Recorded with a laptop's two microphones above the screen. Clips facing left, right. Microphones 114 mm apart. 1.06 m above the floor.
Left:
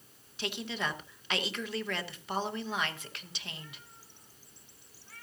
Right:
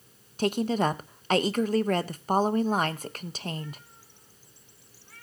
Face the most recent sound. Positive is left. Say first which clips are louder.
# right 11 dB
turn(degrees=-40)  # may be behind; listen again after turning